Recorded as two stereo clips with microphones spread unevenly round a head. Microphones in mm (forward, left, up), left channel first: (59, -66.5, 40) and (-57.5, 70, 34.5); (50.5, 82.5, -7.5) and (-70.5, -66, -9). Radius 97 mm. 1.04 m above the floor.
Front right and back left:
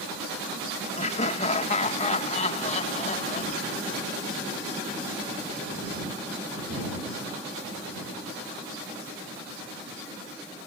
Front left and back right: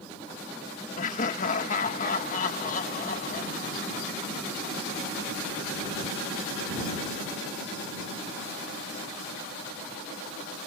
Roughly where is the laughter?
Ahead.